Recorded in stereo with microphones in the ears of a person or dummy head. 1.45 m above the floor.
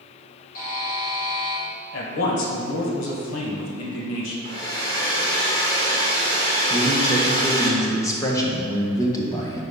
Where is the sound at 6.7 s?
15° left (ahead or behind), 1.1 m.